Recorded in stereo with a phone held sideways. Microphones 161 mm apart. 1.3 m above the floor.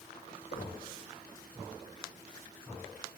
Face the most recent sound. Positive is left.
turn(degrees=80)